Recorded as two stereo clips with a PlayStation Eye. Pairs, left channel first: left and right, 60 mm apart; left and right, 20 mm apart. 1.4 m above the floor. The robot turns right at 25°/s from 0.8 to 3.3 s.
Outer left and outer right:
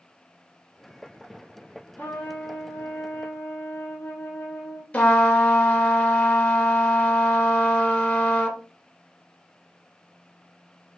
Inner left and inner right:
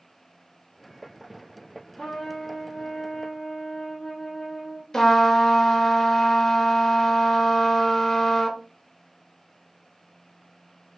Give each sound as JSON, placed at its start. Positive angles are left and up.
{"t": 2.0, "sound": "a trumpet", "azimuth_deg": 70, "distance_m": 0.7}
{"t": 4.9, "sound": "a trumpet", "side_deg": 25, "distance_m": 0.6}